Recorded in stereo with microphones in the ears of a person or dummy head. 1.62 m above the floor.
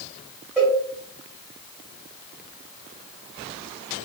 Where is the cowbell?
5° right (ahead or behind), 1.6 m.